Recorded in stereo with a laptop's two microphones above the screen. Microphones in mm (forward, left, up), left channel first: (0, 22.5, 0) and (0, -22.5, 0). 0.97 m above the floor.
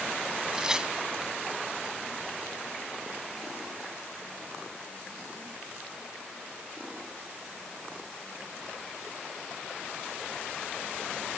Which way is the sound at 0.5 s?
15° right (ahead or behind).